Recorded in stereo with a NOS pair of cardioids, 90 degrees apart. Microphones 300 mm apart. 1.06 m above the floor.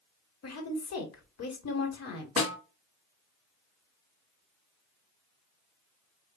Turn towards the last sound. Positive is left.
turn(degrees=50)